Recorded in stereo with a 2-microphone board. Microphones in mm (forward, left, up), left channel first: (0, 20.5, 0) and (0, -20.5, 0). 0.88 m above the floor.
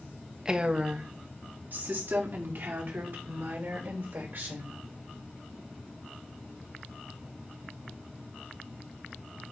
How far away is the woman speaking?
About 0.9 m.